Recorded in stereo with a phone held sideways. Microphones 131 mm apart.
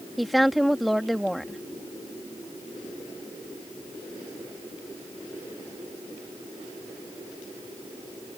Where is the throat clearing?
I don't hear throat clearing.